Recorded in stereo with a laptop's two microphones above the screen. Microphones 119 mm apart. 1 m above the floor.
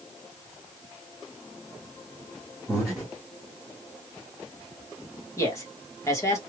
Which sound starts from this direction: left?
A man speaking, at 5.4 s.